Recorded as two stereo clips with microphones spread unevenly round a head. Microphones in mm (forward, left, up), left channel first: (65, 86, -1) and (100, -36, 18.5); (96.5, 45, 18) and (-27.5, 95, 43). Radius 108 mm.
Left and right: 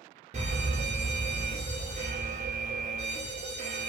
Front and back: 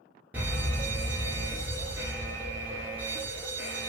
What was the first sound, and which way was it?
A fire alarm, 120° right.